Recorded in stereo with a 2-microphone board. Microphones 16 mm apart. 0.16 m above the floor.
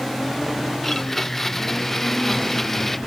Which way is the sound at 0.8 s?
15° left (ahead or behind).